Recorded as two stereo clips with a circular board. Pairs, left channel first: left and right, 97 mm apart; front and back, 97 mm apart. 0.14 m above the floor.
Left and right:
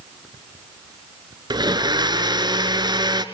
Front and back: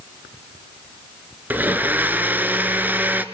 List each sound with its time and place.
1.5 s a blender: 110° right, 1.3 m